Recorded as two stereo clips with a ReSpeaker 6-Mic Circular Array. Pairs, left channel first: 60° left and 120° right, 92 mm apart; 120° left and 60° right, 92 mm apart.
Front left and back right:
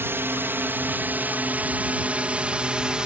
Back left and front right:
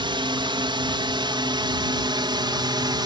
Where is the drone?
60° right; by 3.1 s 40° right.